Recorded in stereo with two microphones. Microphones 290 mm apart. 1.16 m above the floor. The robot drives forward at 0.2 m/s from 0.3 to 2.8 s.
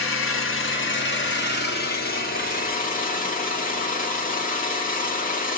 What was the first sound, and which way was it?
An engine running, 45° left (ahead or behind).